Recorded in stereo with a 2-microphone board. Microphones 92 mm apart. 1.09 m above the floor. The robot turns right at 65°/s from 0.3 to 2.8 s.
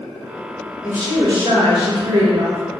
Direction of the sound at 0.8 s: 175° right.